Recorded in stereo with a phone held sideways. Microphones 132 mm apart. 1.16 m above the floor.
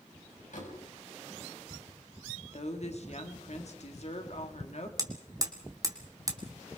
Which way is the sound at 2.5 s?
60° left (ahead or behind).